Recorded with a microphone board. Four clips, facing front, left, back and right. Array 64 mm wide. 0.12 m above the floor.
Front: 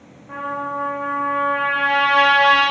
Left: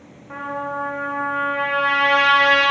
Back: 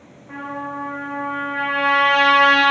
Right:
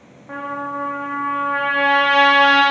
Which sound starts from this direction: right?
A trumpet, at 0.3 s.